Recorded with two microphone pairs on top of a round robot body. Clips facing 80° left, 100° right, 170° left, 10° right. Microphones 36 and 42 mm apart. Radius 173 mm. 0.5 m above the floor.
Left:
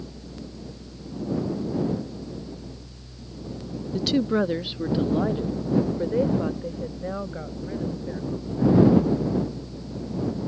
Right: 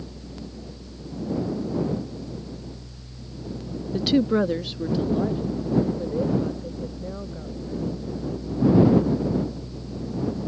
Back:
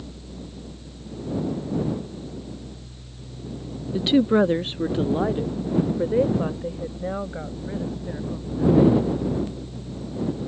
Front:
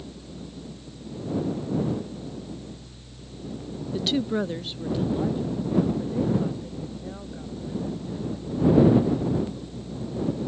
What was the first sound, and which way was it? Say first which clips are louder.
A woman speaking: right 2 dB, back 8 dB; 145° right.